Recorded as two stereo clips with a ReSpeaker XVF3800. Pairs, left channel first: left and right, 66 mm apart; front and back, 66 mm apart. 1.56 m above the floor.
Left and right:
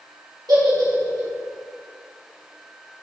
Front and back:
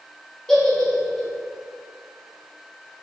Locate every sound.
0.5 s a giggle: 80° right, 2 m